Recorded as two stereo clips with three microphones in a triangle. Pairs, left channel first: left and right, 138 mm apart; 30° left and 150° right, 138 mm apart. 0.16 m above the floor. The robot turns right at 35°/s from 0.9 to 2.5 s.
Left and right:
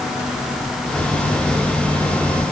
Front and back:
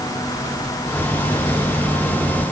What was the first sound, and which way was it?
Only background noise.